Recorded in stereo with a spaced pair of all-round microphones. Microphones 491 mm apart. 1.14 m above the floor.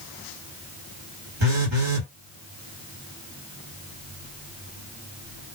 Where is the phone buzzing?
60° right (ahead or behind), 1.7 m.